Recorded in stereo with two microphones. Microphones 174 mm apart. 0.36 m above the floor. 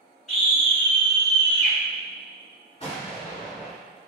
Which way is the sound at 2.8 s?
35° left (ahead or behind).